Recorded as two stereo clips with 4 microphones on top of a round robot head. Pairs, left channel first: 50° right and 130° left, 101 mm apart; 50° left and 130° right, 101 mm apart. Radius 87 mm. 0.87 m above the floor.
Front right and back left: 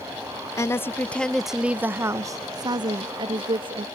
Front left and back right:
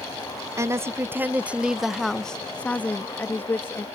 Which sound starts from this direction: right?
A woman speaking, at 0.6 s.